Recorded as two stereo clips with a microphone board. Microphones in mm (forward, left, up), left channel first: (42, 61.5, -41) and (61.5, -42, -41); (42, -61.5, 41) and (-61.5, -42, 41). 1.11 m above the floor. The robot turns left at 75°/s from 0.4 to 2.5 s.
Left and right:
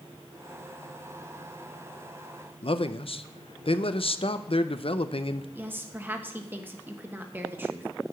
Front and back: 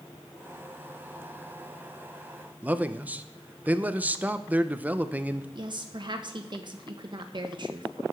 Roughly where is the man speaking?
Left.